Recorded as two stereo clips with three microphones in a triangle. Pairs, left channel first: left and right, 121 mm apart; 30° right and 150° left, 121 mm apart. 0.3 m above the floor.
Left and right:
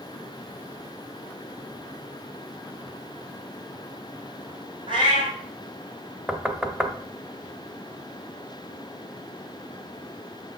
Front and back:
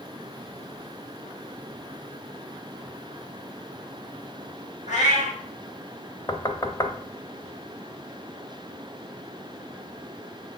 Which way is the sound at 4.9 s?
40° right.